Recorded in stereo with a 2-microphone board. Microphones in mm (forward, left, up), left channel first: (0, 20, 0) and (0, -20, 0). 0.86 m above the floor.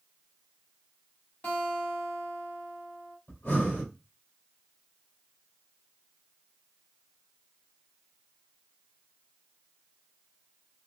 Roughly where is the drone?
No drone in this recording.